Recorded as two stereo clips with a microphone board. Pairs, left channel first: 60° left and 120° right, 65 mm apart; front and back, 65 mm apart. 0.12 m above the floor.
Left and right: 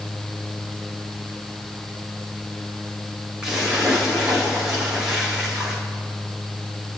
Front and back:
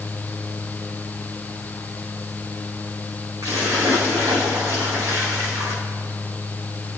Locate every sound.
3.4 s a splash: 160° left, 4.5 m